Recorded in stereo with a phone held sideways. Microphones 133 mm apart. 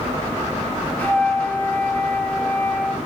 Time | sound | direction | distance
1.0 | a flute | 15° left (ahead or behind) | 0.7 m